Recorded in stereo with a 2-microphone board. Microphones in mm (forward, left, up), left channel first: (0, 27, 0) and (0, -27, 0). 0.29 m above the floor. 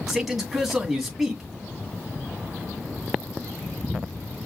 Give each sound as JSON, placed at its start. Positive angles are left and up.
{"t": 0.1, "sound": "a man speaking", "side_deg": -5, "distance_m": 2.5}